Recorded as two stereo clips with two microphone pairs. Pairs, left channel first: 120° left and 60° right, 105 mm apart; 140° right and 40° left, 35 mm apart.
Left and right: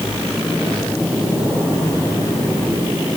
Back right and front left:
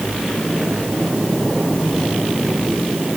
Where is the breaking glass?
No breaking glass in this recording.